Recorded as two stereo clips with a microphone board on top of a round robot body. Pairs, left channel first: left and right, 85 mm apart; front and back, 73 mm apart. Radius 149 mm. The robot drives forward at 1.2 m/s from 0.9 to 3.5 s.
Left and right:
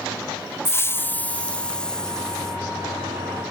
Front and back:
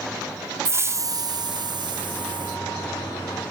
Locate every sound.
0.7 s a hiss: 145° left; by 2.7 s 175° left